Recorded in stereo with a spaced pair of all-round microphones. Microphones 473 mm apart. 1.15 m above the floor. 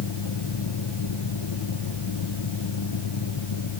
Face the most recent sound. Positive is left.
turn(degrees=70)  # may be behind; listen again after turning